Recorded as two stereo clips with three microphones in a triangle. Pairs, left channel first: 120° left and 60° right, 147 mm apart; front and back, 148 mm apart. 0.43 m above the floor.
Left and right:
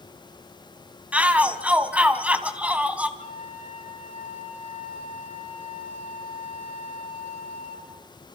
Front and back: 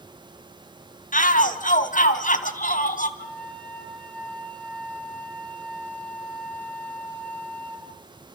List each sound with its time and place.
1.1 s a shout: 20° left, 2.5 m
3.2 s a flute: 75° left, 6 m